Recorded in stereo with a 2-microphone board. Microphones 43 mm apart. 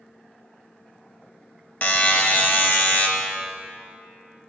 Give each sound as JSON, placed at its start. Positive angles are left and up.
{"t": 1.8, "sound": "a buzzer", "side_deg": 45, "distance_m": 0.7}